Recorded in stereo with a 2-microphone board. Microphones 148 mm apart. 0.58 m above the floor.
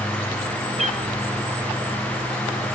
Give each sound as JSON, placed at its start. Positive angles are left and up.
{"t": 0.8, "sound": "a cat meowing", "side_deg": -50, "distance_m": 2.5}